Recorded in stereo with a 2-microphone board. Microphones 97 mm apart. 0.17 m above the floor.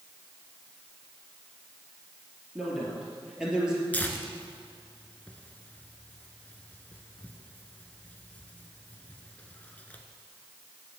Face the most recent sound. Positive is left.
turn(degrees=15)  # may be behind; listen again after turning